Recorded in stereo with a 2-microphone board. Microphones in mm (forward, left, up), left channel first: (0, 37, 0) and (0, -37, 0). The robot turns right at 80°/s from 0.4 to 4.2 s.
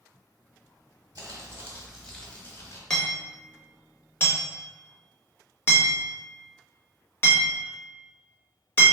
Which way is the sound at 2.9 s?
5° left (ahead or behind).